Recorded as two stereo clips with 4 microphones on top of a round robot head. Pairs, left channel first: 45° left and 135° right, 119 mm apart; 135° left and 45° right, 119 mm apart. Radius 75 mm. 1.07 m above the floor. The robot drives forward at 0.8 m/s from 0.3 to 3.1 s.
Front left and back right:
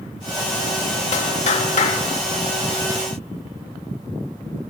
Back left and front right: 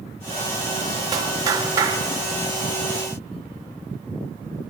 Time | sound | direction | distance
1.1 | a clap | 15° left | 3 m